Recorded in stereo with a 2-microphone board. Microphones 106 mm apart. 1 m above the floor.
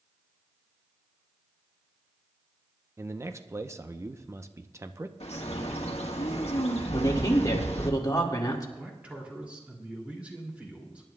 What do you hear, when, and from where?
3.0 s a man speaking: 25° right (ahead or behind), 0.6 m
5.2 s a bird: 75° left (ahead or behind), 1.3 m
6.9 s a man speaking: 35° left (ahead or behind), 1.9 m
8.8 s a man speaking: 10° right (ahead or behind), 2.5 m